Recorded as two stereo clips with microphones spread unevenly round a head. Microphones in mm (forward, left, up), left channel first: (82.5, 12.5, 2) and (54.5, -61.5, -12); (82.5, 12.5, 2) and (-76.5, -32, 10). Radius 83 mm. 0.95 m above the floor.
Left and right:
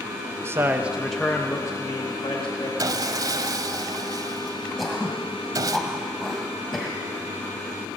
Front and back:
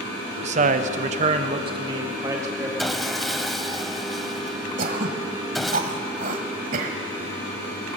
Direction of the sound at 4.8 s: 155° left.